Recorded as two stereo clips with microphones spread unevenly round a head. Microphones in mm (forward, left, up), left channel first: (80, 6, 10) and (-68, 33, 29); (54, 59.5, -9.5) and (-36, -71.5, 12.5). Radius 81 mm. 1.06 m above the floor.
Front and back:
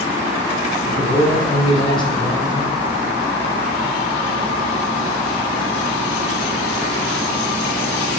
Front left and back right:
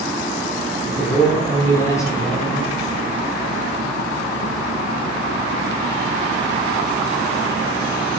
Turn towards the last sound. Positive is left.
turn(degrees=5)